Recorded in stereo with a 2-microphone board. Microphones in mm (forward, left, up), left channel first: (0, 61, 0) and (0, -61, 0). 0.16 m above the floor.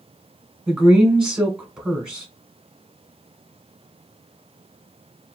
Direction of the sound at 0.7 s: 5° right (ahead or behind).